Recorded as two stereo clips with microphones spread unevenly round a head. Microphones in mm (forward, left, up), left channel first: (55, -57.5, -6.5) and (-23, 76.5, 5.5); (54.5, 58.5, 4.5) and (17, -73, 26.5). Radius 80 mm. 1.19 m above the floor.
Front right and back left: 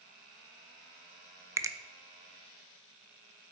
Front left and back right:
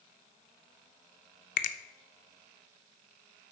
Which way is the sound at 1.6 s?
50° left.